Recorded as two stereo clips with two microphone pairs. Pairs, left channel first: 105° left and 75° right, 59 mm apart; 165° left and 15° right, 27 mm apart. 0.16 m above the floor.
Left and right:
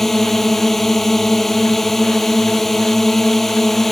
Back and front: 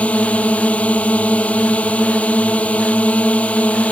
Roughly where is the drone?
Behind.